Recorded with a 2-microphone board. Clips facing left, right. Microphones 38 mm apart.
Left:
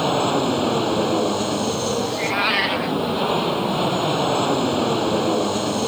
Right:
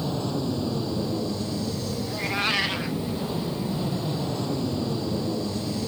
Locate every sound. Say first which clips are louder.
0.0 s an aircraft: left 9 dB; 70° left (ahead or behind)
2.1 s a cat meowing: left 2 dB; 20° left (ahead or behind)